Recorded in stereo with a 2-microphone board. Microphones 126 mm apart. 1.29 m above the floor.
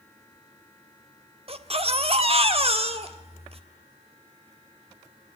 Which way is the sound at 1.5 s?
50° right (ahead or behind).